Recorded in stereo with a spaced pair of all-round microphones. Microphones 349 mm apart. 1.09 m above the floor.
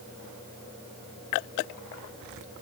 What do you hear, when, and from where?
Only background noise.